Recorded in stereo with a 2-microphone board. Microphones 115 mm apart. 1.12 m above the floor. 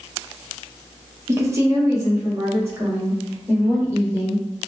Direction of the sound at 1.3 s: 25° right (ahead or behind).